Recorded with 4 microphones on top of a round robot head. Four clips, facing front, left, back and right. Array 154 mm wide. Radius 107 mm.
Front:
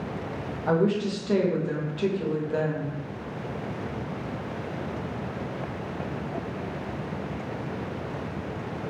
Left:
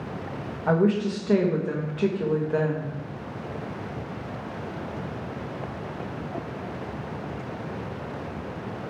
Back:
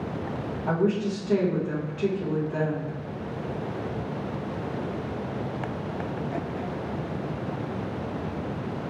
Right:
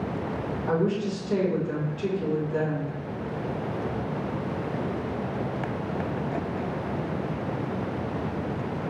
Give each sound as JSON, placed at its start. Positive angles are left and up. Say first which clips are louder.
{"t": 0.7, "sound": "a woman speaking", "louder": "left 4 dB, front 1 dB", "azimuth_deg": 75, "distance_m": 1.3}